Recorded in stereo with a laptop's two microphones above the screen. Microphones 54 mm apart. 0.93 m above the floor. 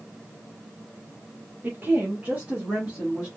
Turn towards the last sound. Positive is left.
turn(degrees=-25)  # may be behind; listen again after turning